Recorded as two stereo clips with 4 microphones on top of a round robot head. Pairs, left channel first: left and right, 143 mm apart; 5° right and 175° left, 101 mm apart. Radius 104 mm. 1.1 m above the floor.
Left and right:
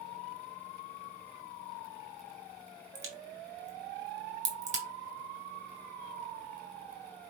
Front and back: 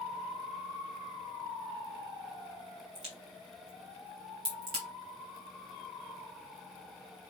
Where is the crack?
125° right, 2.5 m.